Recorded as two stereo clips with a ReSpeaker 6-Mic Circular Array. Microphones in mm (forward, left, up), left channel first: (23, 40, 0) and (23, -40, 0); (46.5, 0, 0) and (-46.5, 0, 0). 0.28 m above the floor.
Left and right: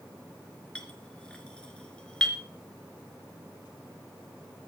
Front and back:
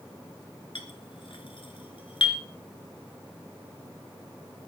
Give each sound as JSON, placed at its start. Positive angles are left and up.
{"t": 0.8, "sound": "a clink", "azimuth_deg": 15, "distance_m": 3.0}